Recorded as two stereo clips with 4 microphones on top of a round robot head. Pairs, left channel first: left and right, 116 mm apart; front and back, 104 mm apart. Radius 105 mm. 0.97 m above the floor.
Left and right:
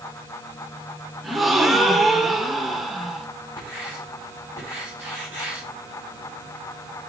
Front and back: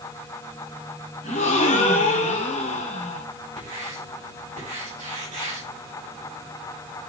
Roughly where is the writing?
Behind.